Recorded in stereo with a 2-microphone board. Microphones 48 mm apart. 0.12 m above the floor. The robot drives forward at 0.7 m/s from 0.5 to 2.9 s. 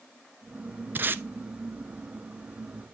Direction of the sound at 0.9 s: 45° right (ahead or behind).